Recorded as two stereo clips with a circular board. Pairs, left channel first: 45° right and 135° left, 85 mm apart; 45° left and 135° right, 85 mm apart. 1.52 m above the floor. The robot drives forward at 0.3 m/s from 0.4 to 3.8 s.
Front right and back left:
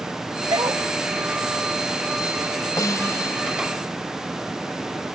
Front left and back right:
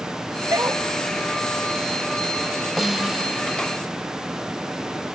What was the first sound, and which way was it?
A dog barking, 170° left.